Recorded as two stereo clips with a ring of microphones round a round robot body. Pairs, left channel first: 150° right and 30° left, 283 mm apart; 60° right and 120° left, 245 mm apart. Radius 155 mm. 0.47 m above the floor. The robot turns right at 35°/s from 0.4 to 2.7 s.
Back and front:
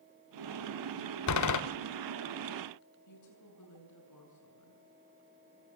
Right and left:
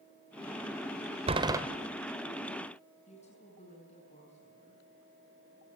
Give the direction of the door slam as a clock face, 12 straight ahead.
6 o'clock.